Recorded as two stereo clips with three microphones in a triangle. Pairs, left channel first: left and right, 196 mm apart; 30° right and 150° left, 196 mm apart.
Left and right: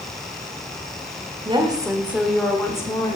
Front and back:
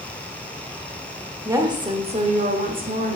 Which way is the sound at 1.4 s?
140° right.